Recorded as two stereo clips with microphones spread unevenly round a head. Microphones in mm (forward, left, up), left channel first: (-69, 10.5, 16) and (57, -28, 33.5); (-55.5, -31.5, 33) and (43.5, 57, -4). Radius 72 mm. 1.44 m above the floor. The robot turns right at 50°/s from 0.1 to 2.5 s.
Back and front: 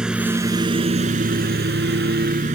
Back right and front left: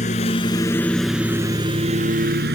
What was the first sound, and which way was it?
A lawn mower, 100° right.